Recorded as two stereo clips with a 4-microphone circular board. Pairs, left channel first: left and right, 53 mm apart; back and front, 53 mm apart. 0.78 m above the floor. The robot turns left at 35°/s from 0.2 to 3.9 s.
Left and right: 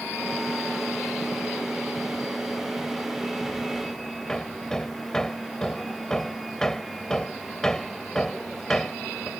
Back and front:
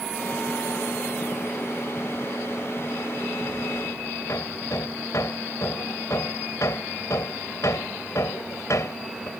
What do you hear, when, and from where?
4.3 s hammering: 170° left